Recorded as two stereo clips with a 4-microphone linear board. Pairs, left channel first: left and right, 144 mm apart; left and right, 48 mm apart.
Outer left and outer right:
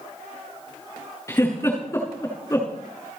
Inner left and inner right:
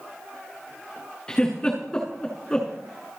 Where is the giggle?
20° left (ahead or behind), 6.5 m.